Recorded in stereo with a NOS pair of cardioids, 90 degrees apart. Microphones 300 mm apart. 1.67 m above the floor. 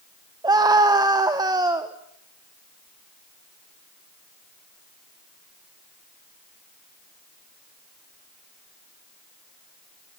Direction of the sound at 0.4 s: 15° right.